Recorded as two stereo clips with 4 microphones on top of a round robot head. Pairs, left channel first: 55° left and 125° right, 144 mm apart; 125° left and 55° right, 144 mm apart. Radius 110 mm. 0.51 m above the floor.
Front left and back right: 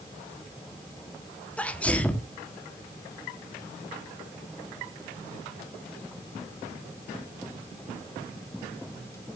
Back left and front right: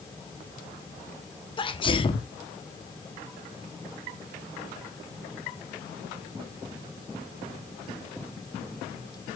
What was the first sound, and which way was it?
A sneeze, 130° left.